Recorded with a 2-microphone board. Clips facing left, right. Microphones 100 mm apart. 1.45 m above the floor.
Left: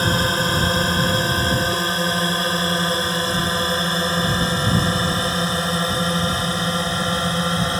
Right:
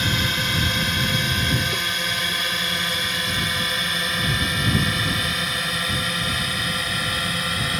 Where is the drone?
35° left (ahead or behind); by 7.8 s 30° left (ahead or behind).